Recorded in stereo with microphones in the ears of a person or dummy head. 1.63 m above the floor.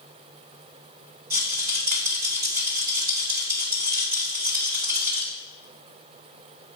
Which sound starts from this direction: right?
A rattle, at 1.3 s.